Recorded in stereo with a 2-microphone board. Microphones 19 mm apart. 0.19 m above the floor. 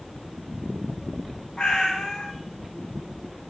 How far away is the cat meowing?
About 2 m.